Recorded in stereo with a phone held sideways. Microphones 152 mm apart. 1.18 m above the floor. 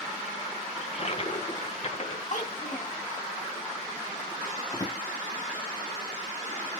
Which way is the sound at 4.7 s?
25° left (ahead or behind).